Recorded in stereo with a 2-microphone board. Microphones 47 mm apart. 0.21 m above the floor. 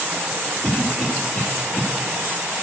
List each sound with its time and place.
0.6 s a cough: 5° left (ahead or behind), 5.5 m